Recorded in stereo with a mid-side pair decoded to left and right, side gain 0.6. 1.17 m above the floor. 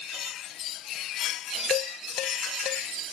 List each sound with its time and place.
1.7 s dishes clattering: 60° left